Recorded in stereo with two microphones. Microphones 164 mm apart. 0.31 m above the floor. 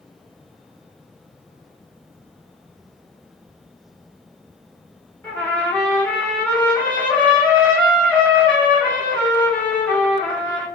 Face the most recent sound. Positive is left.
turn(degrees=10)  # may be behind; listen again after turning